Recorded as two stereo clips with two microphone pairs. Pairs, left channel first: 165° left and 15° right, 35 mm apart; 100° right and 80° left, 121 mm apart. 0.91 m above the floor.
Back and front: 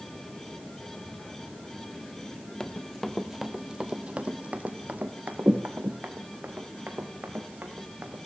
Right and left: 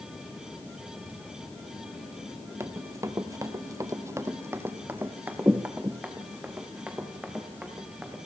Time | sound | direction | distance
2.6 | running footsteps | 125° left | 1.0 m